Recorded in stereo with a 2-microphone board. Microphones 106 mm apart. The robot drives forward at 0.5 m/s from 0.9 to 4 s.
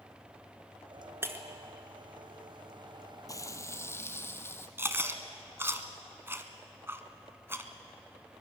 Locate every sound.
1.2 s breaking glass: 20° right (ahead or behind), 1.3 m
3.3 s frying: 35° left (ahead or behind), 0.8 m; by 4.7 s 25° left (ahead or behind), 1.1 m
4.8 s chewing: 20° right (ahead or behind), 1.2 m